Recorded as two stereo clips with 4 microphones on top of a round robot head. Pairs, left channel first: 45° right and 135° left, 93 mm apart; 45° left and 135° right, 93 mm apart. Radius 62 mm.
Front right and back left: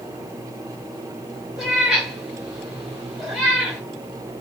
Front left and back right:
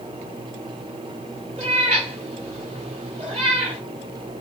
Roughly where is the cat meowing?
Behind right.